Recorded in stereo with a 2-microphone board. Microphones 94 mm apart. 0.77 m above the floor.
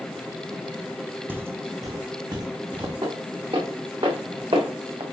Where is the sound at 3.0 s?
60° right (ahead or behind), 4 m; by 5.0 s 70° right (ahead or behind), 2 m.